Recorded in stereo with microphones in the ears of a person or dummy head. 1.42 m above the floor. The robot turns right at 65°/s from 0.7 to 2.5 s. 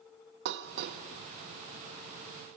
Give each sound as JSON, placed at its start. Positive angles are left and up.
{"t": 0.5, "sound": "dishes clattering", "side_deg": -50, "distance_m": 1.0}